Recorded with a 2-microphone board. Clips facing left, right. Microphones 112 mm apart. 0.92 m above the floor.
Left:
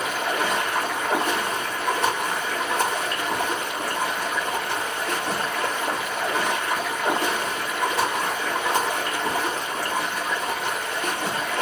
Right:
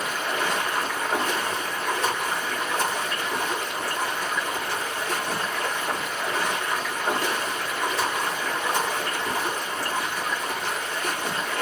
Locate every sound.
0.0 s running water: 65° left (ahead or behind), 1.4 m